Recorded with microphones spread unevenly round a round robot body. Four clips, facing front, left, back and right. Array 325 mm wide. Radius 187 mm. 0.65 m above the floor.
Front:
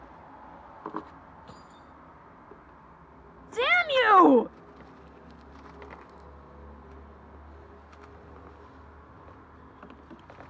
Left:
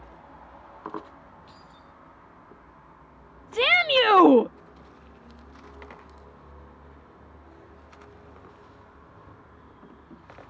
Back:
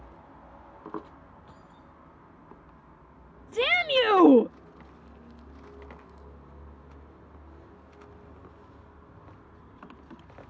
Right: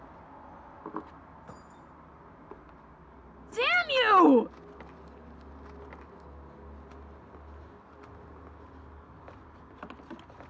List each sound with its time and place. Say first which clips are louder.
1.5 s keys jangling: right 1 dB, front 3 dB; 45° right
3.5 s a shout: left 5 dB, front 1 dB; 150° left